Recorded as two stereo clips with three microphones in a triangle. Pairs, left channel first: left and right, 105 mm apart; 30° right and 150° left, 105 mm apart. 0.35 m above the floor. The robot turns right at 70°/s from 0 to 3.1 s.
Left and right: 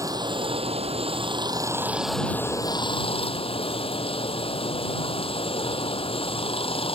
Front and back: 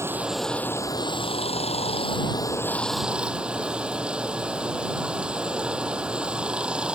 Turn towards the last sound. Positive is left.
turn(degrees=70)